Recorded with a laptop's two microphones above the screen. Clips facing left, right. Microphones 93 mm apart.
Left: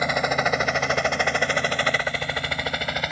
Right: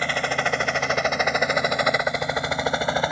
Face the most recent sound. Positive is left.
turn(degrees=-30)  # may be behind; listen again after turning